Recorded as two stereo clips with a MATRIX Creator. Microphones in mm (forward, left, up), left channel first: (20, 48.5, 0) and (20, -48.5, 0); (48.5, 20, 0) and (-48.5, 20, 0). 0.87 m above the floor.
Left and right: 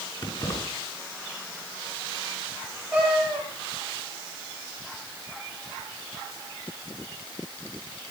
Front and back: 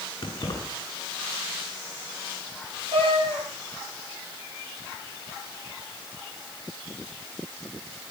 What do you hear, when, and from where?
0.2 s keys jangling: 45° left, 8 m
2.9 s a cat meowing: 170° right, 9.5 m